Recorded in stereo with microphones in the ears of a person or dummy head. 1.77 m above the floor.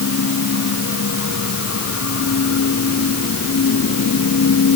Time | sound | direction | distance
0.0 | a machine running | 80° left | ?